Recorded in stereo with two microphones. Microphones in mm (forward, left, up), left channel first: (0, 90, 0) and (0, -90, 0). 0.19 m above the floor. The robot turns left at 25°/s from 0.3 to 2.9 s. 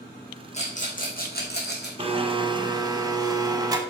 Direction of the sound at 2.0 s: 30° right (ahead or behind).